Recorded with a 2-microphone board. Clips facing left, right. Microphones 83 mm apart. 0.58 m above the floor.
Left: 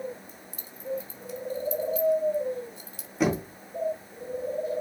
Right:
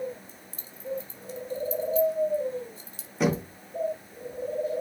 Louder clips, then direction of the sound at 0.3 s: Left 2 dB; 30° right (ahead or behind).